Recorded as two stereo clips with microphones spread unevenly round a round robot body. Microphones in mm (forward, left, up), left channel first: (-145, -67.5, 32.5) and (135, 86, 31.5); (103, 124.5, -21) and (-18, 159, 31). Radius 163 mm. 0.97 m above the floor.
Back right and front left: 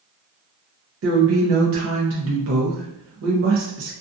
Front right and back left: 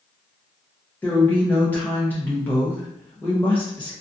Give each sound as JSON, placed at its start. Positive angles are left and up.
{"t": 1.0, "sound": "a woman speaking", "azimuth_deg": 15, "distance_m": 0.6}